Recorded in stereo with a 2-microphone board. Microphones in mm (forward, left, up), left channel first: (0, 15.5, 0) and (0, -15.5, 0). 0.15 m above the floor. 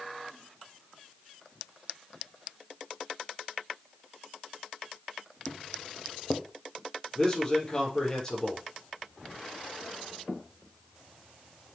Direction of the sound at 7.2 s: 20° left (ahead or behind).